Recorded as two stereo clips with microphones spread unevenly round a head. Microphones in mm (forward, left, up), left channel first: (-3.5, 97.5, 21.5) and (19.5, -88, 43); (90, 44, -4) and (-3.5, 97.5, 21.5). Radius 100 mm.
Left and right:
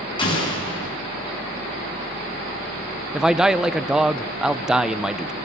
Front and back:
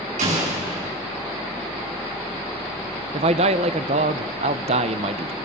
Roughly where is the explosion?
Behind.